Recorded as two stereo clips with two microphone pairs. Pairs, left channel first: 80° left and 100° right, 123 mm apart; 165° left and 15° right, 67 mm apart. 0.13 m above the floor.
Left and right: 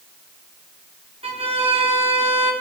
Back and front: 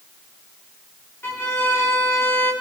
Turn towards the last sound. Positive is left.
turn(degrees=-140)